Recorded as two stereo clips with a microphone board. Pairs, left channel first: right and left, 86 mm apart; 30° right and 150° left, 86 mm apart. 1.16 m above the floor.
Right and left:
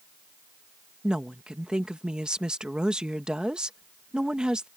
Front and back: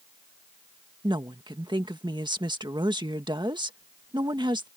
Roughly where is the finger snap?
I don't hear a finger snap.